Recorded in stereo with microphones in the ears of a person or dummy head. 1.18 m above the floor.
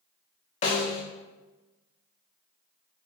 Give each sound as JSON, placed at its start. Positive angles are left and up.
{"t": 0.6, "sound": "a snare drum", "side_deg": 25, "distance_m": 0.9}